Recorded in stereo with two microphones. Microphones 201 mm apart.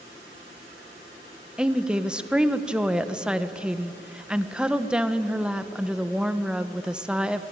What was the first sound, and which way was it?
A woman speaking, 5° right (ahead or behind).